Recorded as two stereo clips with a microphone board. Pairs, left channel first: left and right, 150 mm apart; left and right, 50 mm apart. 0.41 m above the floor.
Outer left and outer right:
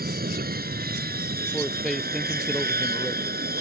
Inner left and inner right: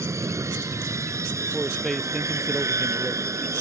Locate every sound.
0.0 s an aircraft: 75° right (ahead or behind)
1.5 s a man speaking: centre (ahead or behind)